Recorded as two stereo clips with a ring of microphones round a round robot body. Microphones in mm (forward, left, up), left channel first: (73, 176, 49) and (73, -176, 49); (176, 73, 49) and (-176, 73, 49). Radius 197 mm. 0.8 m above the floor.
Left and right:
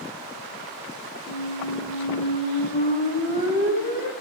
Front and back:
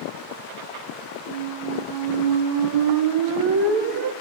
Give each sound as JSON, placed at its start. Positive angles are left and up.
{"t": 1.3, "sound": "a squeak", "azimuth_deg": 160, "distance_m": 1.3}